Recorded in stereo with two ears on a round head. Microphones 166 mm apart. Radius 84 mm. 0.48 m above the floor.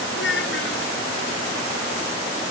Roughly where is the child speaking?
Left.